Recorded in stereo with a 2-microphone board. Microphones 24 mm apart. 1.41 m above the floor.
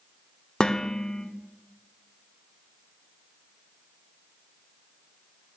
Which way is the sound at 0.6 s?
35° left (ahead or behind).